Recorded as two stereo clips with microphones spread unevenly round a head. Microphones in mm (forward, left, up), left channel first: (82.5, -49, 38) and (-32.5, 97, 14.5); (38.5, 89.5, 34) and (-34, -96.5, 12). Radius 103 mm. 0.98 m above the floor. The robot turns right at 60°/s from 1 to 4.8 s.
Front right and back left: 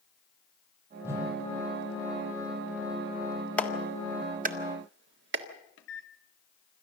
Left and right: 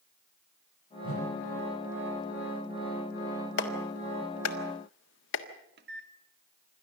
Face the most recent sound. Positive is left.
turn(degrees=-80)